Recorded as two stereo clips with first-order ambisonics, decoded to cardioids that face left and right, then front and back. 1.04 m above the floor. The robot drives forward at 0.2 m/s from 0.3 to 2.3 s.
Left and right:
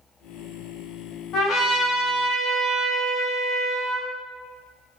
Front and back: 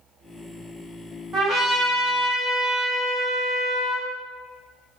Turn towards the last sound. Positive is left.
turn(degrees=135)